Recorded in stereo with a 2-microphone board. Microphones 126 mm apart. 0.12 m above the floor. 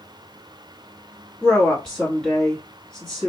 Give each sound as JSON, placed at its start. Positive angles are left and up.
{"t": 1.4, "sound": "a woman speaking", "side_deg": 5, "distance_m": 1.5}